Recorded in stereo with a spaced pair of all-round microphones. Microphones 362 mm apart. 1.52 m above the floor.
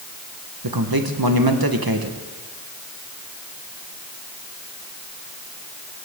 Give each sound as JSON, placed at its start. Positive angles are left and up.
{"t": 0.6, "sound": "a man speaking", "side_deg": -75, "distance_m": 1.3}